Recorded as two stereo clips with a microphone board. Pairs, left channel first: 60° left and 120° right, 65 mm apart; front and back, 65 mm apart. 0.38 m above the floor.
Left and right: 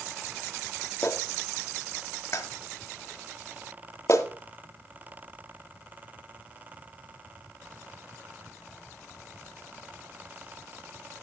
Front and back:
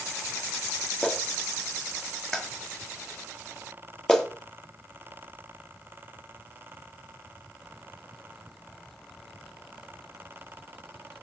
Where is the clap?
80° left, 1.5 m.